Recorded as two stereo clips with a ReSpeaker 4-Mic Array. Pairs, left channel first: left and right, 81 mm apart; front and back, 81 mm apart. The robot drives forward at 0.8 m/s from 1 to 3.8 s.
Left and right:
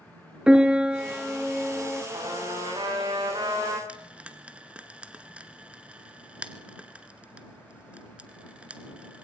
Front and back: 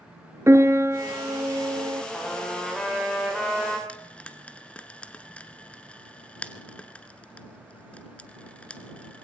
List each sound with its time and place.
0.5 s a piano: 160° right, 1.6 m; by 2.0 s 170° right, 2 m
2.1 s a trumpet: 85° right, 9.5 m; by 3.8 s 95° right, 9.5 m
3.9 s frying: 45° right, 1.4 m